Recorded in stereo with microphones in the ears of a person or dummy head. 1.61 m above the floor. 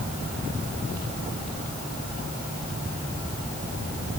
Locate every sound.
Only background noise.